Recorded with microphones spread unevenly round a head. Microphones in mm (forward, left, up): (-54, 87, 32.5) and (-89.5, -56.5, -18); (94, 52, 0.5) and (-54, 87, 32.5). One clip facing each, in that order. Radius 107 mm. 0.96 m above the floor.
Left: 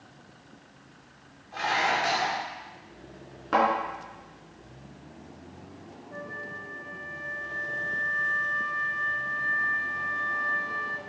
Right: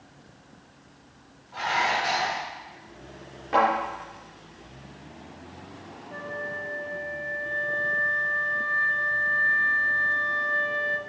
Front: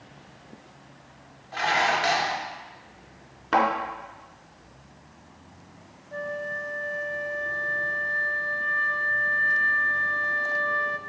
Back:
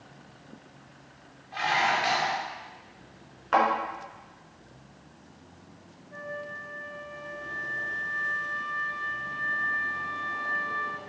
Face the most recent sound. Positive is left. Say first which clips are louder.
# right 6 dB, front 6 dB
turn(degrees=-30)